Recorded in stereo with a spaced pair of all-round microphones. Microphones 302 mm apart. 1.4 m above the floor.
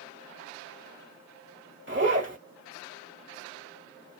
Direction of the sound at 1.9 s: 40° right (ahead or behind).